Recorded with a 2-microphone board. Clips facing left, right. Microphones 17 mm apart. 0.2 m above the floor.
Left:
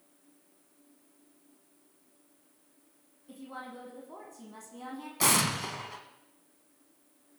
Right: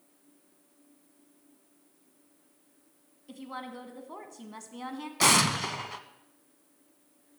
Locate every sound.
3.3 s a woman speaking: 45° right (ahead or behind), 1.5 m
5.2 s an explosion: 30° right (ahead or behind), 0.6 m